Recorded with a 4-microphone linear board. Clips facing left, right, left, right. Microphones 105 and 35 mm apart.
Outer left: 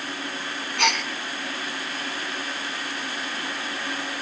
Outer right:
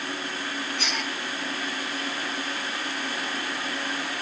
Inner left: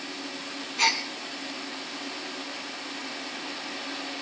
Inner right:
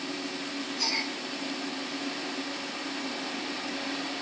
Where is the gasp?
65° left (ahead or behind), 3 m.